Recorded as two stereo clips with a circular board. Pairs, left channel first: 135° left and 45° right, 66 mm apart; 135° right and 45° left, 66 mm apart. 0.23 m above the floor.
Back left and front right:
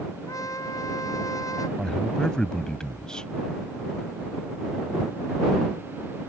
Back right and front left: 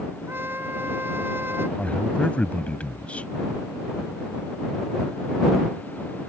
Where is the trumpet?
105° left.